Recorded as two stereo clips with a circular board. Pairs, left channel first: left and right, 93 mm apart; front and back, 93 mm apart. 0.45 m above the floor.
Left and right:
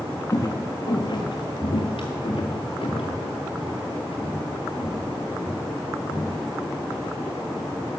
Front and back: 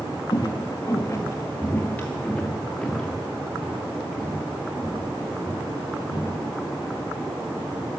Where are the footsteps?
40° left, 1.7 m; by 6.5 s 105° left, 5 m.